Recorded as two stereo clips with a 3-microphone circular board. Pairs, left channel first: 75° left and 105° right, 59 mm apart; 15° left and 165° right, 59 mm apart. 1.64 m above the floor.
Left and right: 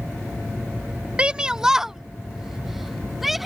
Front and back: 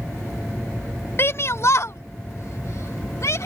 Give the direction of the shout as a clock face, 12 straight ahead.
1 o'clock.